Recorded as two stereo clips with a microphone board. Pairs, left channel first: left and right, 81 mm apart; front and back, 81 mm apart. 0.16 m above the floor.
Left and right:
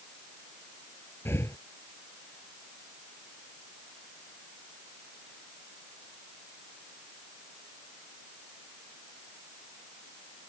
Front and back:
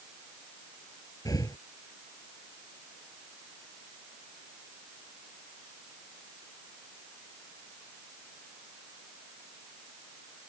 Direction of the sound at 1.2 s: 35° left.